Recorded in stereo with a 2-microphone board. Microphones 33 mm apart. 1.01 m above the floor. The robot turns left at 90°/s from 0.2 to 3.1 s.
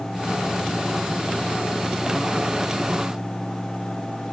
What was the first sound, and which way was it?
Only background noise.